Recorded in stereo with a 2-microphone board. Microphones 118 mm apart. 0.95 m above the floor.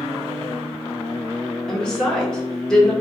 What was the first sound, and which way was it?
A woman speaking, 5° left (ahead or behind).